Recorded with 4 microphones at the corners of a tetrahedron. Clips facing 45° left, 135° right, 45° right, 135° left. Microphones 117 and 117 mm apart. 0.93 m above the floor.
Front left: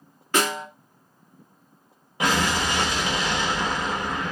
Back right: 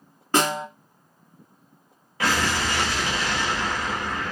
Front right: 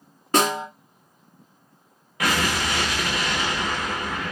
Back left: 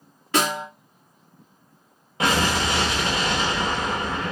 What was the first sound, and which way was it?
A snare drum, 90° right.